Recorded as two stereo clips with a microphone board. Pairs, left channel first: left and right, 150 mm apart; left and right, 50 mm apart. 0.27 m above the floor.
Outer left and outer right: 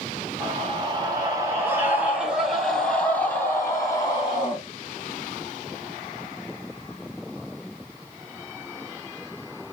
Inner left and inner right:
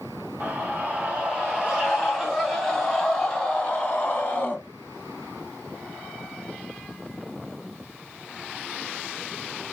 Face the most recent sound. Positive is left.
turn(degrees=30)  # may be behind; listen again after turning